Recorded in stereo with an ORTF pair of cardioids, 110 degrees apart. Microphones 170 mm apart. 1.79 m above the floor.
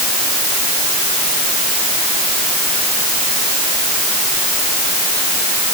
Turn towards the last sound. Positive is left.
No sound to turn to.